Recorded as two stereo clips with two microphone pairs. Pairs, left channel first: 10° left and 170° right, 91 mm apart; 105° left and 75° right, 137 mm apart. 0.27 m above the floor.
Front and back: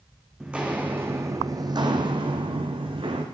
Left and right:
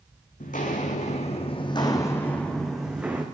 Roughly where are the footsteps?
Left.